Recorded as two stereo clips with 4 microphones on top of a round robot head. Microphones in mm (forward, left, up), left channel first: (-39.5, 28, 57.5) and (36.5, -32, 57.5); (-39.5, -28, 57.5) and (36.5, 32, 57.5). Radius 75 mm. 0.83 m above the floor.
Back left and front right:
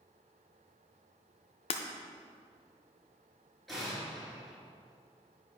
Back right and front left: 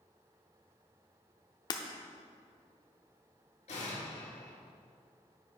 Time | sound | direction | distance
1.7 | breaking glass | 170° left | 0.6 m
3.7 | an explosion | 130° right | 2.5 m